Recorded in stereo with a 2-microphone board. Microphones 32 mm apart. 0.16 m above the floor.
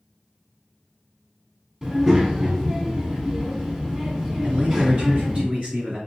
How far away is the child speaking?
About 0.6 m.